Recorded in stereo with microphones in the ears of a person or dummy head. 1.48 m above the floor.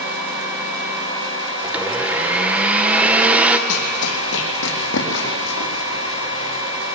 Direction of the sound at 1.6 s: 5° right (ahead or behind).